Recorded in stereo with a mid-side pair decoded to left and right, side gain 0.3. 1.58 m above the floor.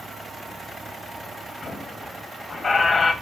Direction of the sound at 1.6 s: 65° left.